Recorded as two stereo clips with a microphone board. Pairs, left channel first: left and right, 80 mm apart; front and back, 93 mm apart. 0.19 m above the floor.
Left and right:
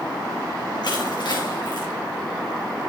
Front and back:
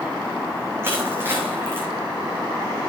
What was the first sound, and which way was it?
Crushing, 115° left.